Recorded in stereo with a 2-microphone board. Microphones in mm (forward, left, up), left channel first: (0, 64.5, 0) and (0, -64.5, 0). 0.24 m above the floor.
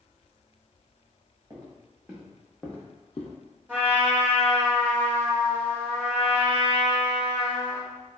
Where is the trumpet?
15° right (ahead or behind), 1.2 m.